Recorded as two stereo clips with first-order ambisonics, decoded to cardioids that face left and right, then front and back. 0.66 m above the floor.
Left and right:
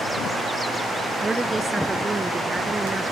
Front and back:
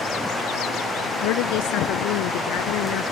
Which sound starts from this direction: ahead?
A woman speaking, at 1.2 s.